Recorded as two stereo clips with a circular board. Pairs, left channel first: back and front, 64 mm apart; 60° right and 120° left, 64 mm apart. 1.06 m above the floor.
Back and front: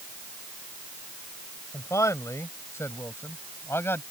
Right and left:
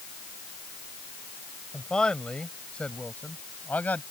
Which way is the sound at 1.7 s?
140° right.